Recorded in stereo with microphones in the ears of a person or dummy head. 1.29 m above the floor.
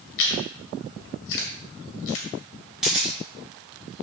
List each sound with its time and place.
0.2 s chewing: 60° left (ahead or behind), 1.8 m
2.8 s a camera shutter: 5° right (ahead or behind), 4 m